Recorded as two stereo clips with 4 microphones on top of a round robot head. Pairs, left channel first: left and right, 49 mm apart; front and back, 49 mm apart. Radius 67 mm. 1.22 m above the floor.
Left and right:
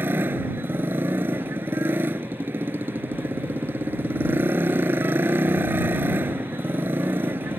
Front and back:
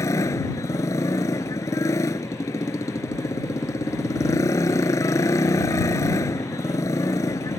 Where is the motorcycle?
30° right.